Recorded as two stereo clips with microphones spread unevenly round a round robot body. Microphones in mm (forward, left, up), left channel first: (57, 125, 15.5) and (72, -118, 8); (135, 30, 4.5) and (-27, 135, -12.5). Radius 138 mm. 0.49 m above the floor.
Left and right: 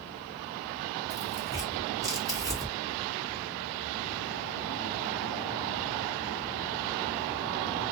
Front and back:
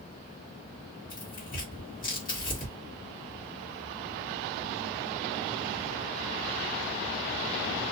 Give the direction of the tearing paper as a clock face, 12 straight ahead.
1 o'clock.